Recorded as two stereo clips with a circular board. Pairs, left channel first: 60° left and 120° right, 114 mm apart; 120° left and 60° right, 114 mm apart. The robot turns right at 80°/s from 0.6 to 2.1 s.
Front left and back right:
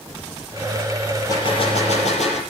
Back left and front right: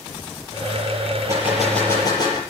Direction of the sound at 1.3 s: Straight ahead.